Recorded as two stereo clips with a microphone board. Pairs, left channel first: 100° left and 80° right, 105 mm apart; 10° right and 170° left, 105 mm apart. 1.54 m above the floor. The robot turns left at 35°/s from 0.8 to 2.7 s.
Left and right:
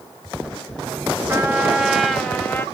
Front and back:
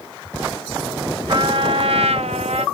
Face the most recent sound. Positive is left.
turn(degrees=165)